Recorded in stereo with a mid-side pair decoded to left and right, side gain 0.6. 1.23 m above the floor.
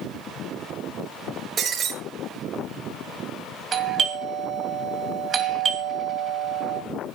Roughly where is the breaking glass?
Ahead right.